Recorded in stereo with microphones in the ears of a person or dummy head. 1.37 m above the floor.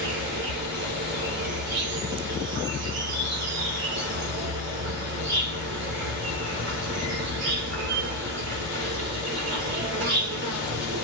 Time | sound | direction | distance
0.0 | an insect | 50° right (ahead or behind) | 1.4 m